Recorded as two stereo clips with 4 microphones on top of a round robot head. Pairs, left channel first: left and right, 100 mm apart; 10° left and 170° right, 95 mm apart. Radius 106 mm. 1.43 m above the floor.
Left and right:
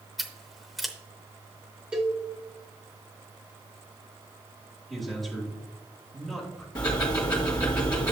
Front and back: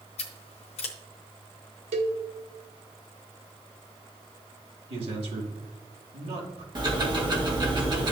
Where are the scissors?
Straight ahead, 0.6 m.